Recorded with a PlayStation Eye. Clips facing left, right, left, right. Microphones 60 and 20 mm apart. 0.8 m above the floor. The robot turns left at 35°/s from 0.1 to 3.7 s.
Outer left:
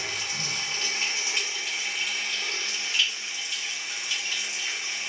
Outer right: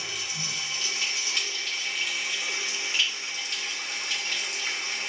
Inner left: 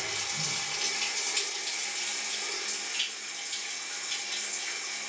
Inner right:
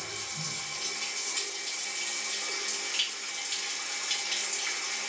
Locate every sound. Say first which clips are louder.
0.0 s running water: outer left 2 dB, inner left 4 dB; 70° left, 0.9 m; by 5.1 s 60° right, 0.9 m